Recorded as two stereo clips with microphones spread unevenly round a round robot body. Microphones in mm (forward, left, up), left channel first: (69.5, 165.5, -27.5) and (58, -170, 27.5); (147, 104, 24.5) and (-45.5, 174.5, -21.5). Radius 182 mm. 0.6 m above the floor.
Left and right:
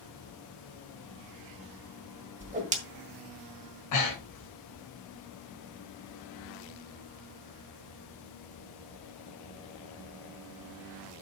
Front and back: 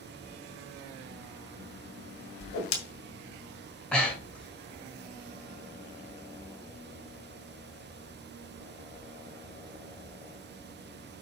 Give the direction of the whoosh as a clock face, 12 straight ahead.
1 o'clock.